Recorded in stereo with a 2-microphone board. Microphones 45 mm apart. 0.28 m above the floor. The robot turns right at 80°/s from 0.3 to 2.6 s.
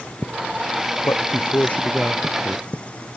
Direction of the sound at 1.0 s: 90° left.